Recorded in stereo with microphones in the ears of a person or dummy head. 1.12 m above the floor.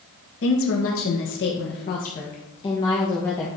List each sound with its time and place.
0.4 s a woman speaking: 65° left (ahead or behind), 1.4 m; by 3.5 s 10° left (ahead or behind), 1.5 m